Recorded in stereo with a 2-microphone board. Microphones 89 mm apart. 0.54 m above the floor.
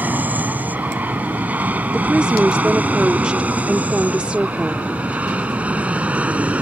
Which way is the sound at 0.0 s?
20° right (ahead or behind).